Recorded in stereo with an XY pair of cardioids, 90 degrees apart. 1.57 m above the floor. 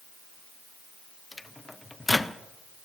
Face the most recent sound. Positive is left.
turn(degrees=15)